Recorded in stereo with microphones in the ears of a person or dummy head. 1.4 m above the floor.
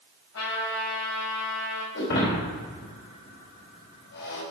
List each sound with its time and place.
0.3 s a trumpet: 75° left (ahead or behind), 6.5 m
1.9 s breaking glass: 60° left (ahead or behind), 4.5 m